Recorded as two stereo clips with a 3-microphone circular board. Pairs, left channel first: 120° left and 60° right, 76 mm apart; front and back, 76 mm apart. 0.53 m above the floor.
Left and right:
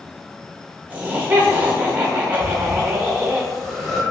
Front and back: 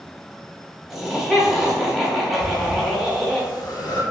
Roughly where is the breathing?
Ahead left.